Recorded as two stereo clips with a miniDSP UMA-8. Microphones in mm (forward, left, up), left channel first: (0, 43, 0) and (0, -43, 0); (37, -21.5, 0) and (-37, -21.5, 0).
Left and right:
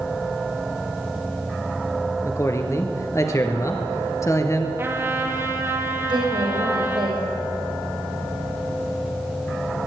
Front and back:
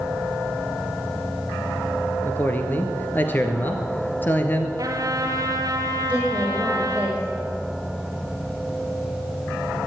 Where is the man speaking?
50° left, 1.7 m.